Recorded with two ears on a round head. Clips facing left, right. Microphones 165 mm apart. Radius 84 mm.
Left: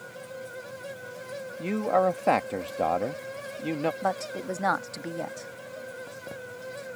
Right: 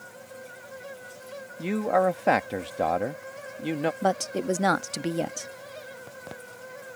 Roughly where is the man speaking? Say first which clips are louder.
Right 1 dB; centre.